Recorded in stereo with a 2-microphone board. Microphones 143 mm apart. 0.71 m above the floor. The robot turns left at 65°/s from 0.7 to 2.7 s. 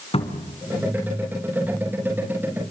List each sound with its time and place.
0.1 s a cupboard door: 45° left (ahead or behind), 2.5 m